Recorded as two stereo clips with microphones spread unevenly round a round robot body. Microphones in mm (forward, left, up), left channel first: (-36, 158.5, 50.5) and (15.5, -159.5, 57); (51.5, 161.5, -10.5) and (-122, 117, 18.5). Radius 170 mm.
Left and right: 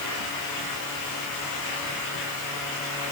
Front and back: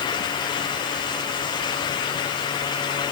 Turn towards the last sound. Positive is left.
No sound to turn to.